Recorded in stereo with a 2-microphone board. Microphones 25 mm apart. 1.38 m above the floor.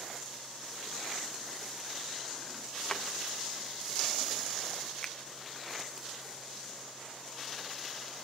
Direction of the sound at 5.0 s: 30° left (ahead or behind).